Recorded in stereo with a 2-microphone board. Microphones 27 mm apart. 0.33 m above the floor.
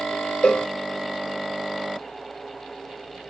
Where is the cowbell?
40° left (ahead or behind), 0.8 m.